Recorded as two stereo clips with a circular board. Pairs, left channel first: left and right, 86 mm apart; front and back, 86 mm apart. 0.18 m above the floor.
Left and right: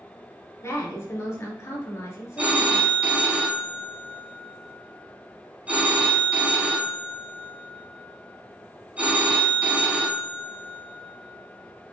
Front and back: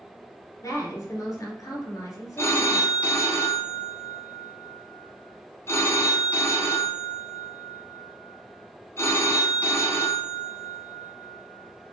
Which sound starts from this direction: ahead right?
A phone ringing, at 2.4 s.